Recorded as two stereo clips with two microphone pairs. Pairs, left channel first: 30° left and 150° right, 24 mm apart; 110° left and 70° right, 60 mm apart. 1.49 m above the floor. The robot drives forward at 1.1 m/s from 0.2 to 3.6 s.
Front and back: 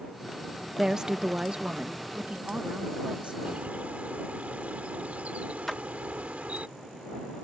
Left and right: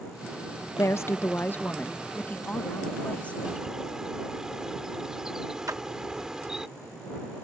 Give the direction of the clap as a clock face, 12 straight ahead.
2 o'clock.